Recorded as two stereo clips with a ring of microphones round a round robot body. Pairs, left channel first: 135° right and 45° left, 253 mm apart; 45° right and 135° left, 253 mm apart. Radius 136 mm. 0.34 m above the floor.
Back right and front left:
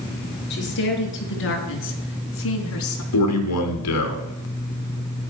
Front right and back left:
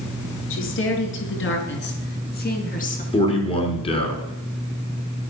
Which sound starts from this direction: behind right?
A man speaking, at 3.1 s.